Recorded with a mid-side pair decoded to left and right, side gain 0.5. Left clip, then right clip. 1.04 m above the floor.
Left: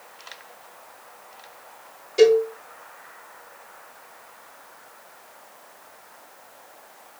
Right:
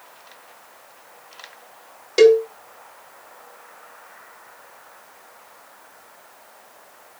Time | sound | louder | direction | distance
2.2 | a cowbell | right 3 dB | 65° right | 2 m